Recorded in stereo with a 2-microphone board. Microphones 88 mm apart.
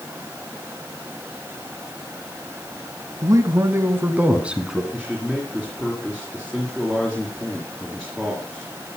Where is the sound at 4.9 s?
Centre (ahead or behind), 3 m.